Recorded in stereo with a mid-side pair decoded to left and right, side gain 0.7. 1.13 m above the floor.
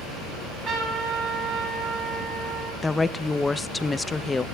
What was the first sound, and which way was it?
A trumpet, 35° right.